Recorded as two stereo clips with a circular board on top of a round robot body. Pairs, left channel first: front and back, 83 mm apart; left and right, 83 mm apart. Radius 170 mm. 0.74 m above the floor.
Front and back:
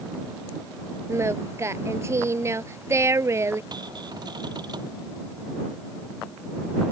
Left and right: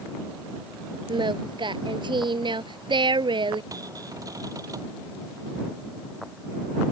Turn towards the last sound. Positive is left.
turn(degrees=-140)